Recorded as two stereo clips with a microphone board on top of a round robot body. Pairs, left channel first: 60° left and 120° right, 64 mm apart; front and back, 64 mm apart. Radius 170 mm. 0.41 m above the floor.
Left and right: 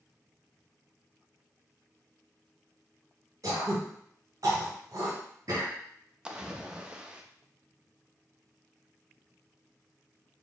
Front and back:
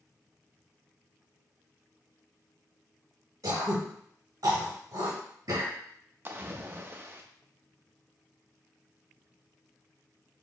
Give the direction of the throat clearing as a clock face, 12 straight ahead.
5 o'clock.